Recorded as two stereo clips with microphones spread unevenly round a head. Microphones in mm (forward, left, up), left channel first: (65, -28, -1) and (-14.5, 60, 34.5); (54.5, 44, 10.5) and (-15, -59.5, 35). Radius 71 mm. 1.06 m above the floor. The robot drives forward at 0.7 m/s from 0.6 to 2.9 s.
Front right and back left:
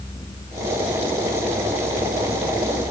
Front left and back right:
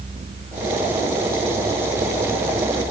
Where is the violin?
I don't hear a violin.